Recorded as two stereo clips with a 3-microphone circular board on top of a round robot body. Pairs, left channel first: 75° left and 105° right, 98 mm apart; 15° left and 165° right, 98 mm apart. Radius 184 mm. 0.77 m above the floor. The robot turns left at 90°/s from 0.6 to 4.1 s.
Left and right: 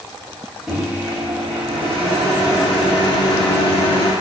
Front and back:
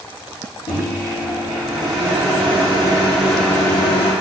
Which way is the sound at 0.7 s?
15° right.